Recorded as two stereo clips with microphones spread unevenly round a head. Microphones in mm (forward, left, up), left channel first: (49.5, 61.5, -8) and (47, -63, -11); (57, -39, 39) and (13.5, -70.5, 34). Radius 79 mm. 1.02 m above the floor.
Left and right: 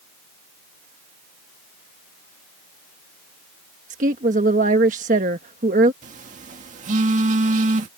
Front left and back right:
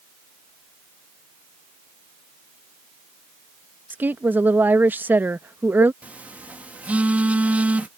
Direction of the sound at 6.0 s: 85° right.